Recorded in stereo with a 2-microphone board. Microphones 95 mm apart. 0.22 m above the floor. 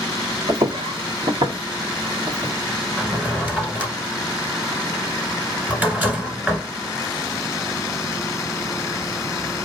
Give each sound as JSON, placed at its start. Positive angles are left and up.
{"t": 0.5, "sound": "footsteps", "side_deg": -50, "distance_m": 0.8}
{"t": 3.0, "sound": "a drawer", "side_deg": -15, "distance_m": 1.1}